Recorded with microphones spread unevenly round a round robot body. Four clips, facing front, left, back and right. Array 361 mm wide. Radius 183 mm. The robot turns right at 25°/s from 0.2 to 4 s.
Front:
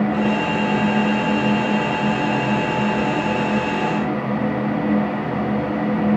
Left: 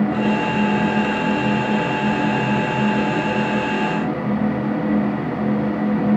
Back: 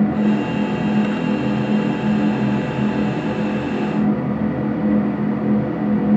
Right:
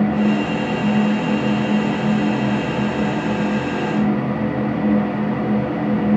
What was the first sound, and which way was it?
Only background noise.